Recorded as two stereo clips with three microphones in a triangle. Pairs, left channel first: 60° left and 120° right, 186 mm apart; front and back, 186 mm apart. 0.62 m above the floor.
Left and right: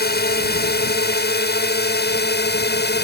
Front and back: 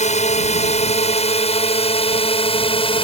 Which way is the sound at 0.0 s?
45° left.